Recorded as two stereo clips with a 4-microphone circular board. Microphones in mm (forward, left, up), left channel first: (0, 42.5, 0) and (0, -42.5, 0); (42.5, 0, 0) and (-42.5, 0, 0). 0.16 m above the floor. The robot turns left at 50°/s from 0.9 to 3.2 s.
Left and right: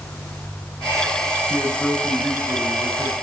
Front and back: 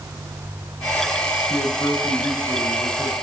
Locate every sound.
1.5 s a man speaking: 10° left, 7.5 m; by 3.1 s 75° right, 7.5 m